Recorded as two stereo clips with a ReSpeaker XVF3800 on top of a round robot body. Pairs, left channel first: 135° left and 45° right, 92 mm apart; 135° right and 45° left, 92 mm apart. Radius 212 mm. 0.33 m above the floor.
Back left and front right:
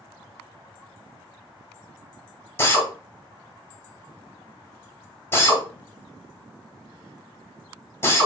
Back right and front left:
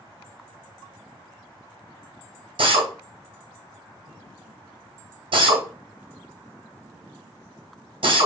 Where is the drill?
70° left, 1.8 m.